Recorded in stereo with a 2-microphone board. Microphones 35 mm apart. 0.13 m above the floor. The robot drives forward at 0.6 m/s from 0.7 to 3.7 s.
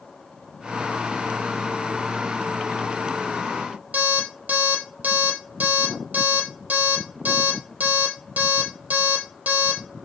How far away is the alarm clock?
About 2 m.